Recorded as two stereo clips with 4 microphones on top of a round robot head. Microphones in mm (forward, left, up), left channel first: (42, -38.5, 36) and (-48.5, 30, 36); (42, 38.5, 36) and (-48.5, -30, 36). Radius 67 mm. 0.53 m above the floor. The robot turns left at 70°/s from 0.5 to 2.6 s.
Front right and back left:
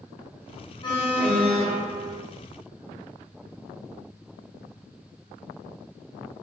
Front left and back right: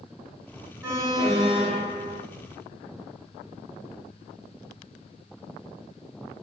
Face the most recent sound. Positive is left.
turn(degrees=160)